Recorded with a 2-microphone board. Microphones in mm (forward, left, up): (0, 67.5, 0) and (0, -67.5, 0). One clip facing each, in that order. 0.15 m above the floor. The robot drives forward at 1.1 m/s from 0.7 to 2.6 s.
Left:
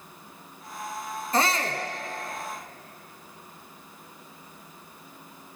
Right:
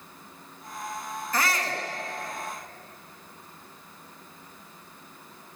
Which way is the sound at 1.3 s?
30° left (ahead or behind).